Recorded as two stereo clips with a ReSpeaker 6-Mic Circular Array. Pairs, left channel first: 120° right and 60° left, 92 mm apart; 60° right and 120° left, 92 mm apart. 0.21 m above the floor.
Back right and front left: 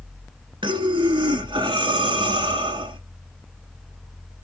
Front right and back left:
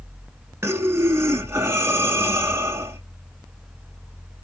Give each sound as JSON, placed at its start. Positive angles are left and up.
{"t": 0.6, "sound": "breathing", "azimuth_deg": 60, "distance_m": 0.6}